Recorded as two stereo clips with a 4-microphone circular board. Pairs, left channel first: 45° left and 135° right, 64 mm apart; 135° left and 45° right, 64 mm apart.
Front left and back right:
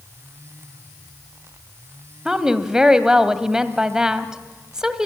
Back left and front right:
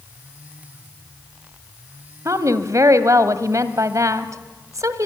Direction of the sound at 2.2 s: 55° right.